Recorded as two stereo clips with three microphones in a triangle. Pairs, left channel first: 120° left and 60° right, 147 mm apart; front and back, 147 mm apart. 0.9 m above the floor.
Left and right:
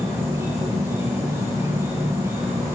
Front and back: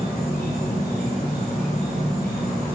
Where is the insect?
10° left, 3.5 m.